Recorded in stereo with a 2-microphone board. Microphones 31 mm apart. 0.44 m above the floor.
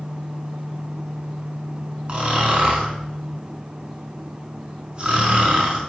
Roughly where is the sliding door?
I don't hear a sliding door.